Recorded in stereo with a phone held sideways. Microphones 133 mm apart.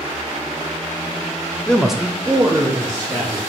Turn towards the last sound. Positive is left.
turn(degrees=-15)  # may be behind; listen again after turning